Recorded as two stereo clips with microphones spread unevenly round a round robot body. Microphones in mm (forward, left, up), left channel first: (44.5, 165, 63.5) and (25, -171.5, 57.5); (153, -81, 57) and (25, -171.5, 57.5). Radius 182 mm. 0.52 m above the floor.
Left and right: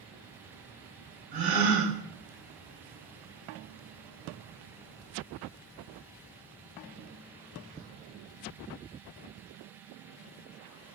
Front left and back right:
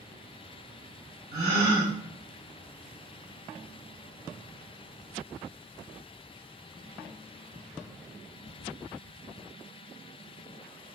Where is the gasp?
150° right, 2 m.